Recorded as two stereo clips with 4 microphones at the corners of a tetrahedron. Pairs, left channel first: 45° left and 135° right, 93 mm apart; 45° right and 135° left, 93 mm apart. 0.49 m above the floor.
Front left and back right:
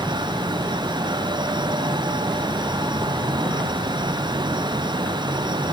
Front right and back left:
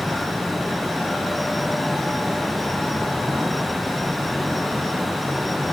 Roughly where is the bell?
I don't hear a bell.